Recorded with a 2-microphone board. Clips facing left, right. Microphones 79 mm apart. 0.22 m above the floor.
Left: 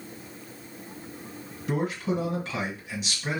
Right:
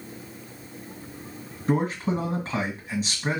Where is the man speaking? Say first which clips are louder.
Right 3 dB; 40° right (ahead or behind), 2.0 m.